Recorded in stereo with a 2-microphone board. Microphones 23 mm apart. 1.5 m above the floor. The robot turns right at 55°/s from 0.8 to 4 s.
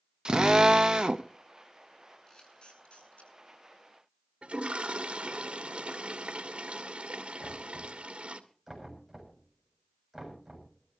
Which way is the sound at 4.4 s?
60° right (ahead or behind).